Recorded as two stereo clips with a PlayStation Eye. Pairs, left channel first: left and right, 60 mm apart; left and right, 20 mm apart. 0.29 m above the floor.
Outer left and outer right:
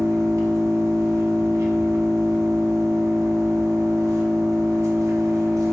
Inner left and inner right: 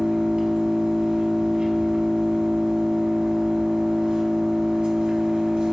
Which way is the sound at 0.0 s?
70° right (ahead or behind).